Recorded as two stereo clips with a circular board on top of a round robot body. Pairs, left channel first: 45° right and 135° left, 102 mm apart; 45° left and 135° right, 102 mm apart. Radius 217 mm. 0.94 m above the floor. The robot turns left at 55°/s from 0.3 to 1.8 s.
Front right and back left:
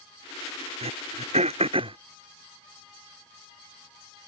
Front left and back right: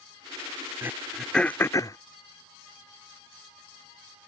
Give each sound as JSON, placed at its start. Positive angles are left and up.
{"t": 0.8, "sound": "throat clearing", "azimuth_deg": 155}